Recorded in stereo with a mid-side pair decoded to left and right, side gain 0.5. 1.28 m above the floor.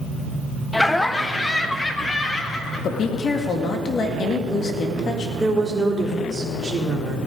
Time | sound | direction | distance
0.7 | laughter | 10° left | 0.7 m
2.8 | a woman speaking | 50° left | 2.5 m
5.4 | a woman speaking | 20° right | 3.5 m